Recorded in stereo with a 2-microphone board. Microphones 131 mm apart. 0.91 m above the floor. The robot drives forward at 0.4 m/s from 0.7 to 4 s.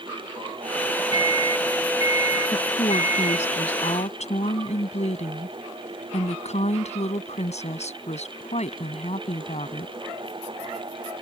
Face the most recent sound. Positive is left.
turn(degrees=60)  # may be behind; listen again after turning